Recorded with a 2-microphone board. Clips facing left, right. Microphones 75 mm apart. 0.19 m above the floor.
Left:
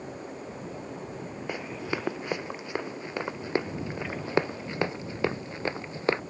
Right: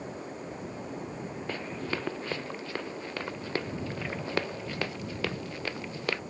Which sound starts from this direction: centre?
Running footsteps, at 1.5 s.